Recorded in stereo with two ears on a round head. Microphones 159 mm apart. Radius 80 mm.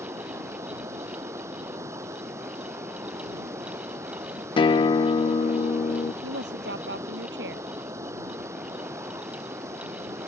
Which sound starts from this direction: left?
A guitar, at 4.6 s.